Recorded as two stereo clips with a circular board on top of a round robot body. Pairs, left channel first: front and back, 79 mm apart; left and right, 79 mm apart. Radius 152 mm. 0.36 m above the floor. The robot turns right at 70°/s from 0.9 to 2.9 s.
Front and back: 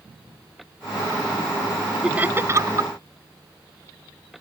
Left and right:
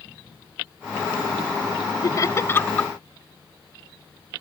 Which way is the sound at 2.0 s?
105° left.